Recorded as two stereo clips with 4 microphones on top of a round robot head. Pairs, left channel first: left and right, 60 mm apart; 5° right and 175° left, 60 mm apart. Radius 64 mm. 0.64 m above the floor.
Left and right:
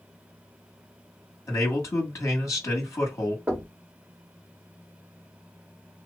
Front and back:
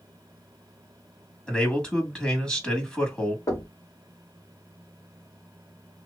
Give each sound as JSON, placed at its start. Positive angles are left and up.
{"t": 1.5, "sound": "a man speaking", "azimuth_deg": 65, "distance_m": 2.0}
{"t": 3.5, "sound": "knocking", "azimuth_deg": -25, "distance_m": 1.7}